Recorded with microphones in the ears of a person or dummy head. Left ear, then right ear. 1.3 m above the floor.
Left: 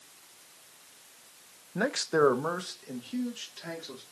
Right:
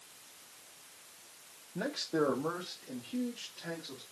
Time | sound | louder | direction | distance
1.8 | a man speaking | left 7 dB | 40° left (ahead or behind) | 0.6 m